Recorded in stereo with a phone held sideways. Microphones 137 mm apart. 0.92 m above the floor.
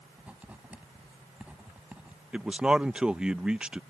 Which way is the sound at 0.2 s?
10° right (ahead or behind).